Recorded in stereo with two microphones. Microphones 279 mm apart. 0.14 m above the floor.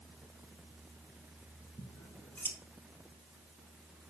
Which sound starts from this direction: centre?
Scissors, at 1.8 s.